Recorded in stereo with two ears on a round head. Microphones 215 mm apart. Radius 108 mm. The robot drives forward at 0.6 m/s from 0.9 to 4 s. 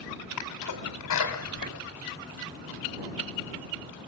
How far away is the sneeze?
About 5 m.